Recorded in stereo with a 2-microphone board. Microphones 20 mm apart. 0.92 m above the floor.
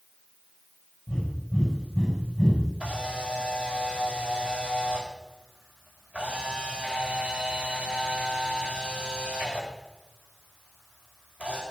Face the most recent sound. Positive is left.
turn(degrees=-80)